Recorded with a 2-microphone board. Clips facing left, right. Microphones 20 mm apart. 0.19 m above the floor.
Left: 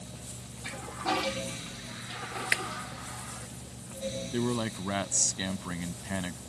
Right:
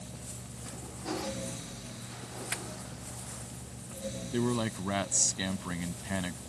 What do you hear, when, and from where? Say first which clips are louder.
0.6 s a toilet flushing: left 8 dB; 70° left (ahead or behind)
2.5 s a clap: left 10 dB; 70° left (ahead or behind)
4.3 s a man speaking: right 1 dB; 5° left (ahead or behind)